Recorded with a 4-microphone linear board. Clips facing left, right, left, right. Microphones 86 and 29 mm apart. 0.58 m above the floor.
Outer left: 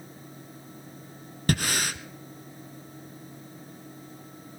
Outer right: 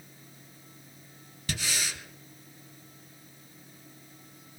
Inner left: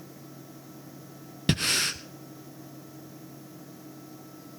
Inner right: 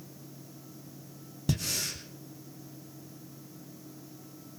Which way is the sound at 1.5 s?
50° left (ahead or behind).